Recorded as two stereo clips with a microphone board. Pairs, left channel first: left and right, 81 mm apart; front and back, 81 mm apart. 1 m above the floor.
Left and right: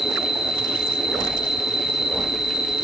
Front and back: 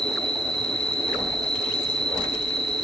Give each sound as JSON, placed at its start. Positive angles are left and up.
{"t": 0.0, "sound": "an insect", "azimuth_deg": -170, "distance_m": 5.0}